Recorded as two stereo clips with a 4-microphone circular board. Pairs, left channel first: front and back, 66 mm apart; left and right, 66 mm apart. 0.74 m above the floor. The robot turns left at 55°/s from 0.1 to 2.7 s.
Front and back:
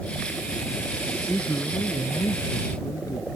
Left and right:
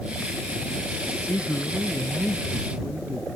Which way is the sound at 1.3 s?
55° left.